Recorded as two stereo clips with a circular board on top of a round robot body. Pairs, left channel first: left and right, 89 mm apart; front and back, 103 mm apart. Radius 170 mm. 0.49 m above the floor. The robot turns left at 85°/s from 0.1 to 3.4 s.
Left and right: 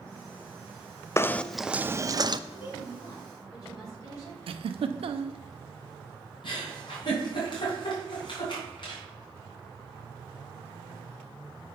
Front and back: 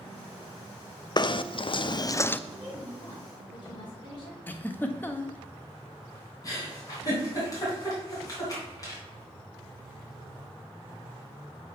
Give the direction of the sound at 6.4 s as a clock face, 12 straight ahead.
10 o'clock.